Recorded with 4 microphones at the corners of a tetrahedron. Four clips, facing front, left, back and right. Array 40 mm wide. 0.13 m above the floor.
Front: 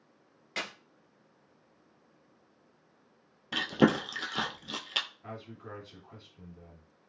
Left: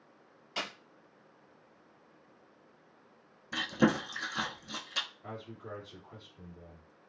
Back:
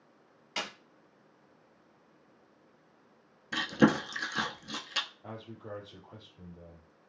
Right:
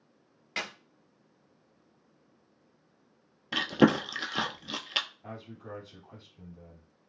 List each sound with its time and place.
0.6 s a clap: 65° right, 1.8 m
3.5 s chewing: 65° right, 0.6 m
5.2 s a man speaking: 5° left, 2 m